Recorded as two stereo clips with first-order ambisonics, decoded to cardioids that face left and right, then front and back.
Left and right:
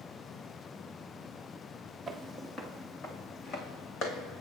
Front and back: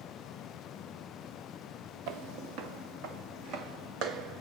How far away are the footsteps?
About 1.2 m.